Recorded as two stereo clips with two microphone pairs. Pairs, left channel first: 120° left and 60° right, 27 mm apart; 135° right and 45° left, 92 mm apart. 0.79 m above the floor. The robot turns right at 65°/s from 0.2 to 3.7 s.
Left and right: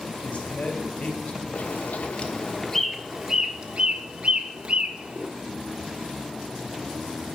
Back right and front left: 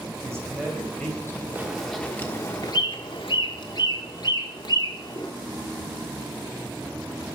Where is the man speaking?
95° left, 3 m; by 1.4 s 170° left, 3 m.